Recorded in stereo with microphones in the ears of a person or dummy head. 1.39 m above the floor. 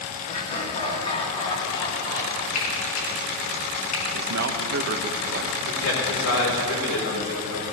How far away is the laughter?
About 2 m.